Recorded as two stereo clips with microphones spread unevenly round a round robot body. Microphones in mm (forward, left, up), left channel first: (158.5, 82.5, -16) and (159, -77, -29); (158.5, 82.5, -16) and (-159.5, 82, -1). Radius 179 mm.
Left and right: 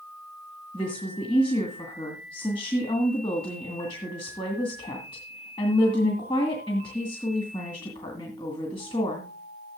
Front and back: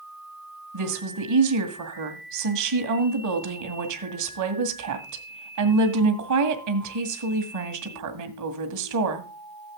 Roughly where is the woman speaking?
Behind.